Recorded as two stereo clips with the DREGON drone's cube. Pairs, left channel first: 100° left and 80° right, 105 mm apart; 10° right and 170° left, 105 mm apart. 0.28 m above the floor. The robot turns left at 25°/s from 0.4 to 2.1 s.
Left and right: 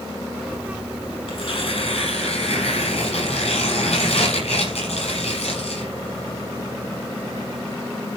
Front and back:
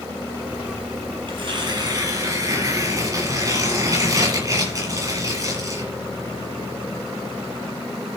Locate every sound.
1.3 s tearing paper: 130° left, 7 m; by 5.9 s 110° left, 7 m